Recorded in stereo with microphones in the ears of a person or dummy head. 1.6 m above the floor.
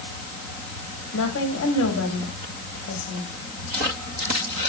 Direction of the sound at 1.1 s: 75° left (ahead or behind).